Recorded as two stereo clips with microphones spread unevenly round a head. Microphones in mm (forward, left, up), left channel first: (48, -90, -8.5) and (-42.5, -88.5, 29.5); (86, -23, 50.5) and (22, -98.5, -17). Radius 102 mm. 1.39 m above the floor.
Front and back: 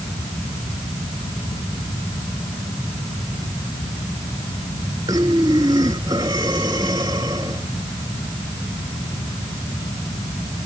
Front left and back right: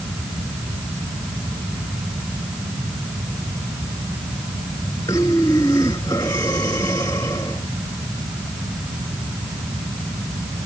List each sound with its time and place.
5.1 s breathing: 115° left